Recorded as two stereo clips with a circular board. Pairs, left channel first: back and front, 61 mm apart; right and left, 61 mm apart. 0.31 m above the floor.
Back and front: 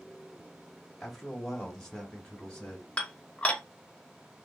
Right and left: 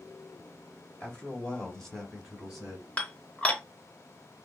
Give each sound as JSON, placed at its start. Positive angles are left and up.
{"t": 1.0, "sound": "a man speaking", "azimuth_deg": -90, "distance_m": 1.4}
{"t": 3.0, "sound": "dishes clattering", "azimuth_deg": -135, "distance_m": 0.6}